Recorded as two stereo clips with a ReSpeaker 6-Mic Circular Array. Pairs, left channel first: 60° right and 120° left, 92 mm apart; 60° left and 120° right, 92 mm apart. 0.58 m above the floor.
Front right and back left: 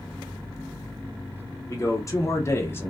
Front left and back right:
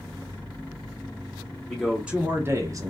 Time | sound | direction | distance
1.7 | a man speaking | 25° right | 0.8 m